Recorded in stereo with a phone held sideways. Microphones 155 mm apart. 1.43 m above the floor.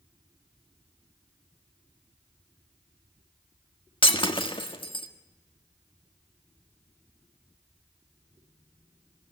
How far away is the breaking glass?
About 1.7 m.